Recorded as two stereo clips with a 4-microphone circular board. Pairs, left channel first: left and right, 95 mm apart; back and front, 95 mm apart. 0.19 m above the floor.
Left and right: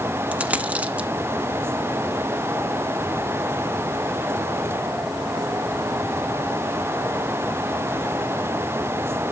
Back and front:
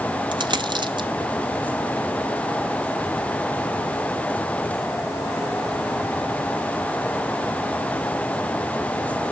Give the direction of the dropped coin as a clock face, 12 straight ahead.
1 o'clock.